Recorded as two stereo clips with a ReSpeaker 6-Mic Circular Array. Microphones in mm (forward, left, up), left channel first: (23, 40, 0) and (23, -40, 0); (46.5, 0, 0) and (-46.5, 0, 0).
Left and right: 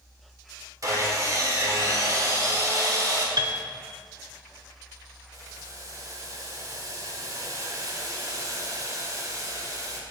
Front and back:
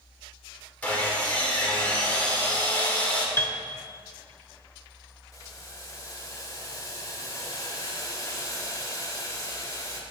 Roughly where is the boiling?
Ahead right.